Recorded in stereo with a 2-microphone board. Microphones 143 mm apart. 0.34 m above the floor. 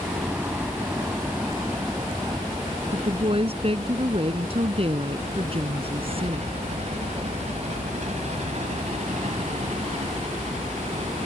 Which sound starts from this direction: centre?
A helicopter, at 0.0 s.